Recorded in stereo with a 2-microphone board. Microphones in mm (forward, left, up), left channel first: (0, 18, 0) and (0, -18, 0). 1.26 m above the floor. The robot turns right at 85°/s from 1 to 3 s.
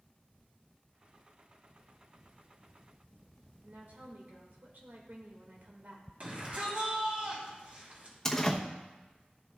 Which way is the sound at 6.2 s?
45° right (ahead or behind).